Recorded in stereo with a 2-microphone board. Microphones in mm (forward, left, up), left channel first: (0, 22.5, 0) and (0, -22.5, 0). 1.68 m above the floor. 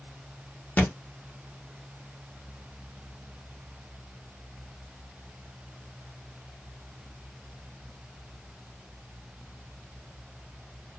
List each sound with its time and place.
0.8 s a thud: 40° left (ahead or behind), 1.2 m